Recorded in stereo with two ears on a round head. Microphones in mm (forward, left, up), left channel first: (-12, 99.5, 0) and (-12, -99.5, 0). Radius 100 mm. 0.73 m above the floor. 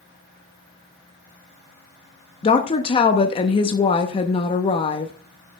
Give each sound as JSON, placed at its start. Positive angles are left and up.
{"t": 2.4, "sound": "a woman speaking", "side_deg": 25, "distance_m": 0.7}